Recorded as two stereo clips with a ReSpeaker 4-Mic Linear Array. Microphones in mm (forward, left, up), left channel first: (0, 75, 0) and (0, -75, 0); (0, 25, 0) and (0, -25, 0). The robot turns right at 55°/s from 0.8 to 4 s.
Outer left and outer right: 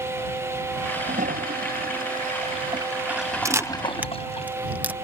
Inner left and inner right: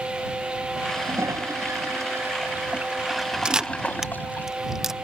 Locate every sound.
0.9 s a toilet flushing: 130° right; by 4.5 s 40° left
3.5 s a camera shutter: 20° right (ahead or behind); by 5.0 s 10° right (ahead or behind)